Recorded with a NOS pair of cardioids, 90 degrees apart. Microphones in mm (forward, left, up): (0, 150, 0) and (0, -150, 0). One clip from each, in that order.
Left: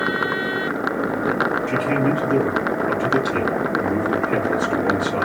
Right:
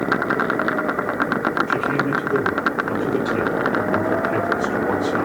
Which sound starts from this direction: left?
A man speaking, at 1.7 s.